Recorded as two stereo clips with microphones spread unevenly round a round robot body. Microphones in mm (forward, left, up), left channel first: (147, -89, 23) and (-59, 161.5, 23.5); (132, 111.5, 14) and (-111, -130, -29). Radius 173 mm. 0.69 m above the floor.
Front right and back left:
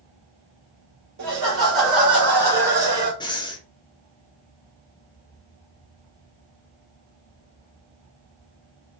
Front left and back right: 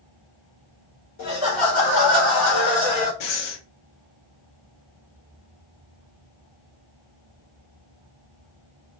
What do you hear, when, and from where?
1.2 s laughter: 95° left, 1.7 m; by 3.1 s 60° left, 2.5 m
3.2 s breathing: 25° left, 0.7 m